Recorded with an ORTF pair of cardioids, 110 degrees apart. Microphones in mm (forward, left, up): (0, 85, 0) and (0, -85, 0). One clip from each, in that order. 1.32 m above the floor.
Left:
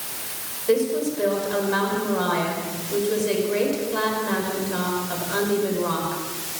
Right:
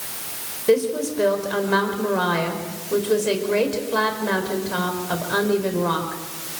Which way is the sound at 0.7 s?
45° right.